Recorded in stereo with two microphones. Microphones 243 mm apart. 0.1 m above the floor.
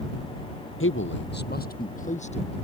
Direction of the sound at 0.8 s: 55° left (ahead or behind).